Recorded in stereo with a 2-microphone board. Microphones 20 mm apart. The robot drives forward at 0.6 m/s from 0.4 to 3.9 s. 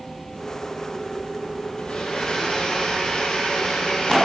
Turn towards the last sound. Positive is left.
turn(degrees=40)  # may be behind; listen again after turning